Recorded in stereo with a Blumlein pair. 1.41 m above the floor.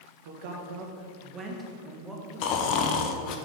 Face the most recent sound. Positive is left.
turn(degrees=40)